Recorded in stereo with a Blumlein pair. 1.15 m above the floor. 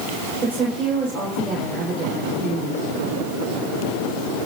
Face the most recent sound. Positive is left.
turn(degrees=-20)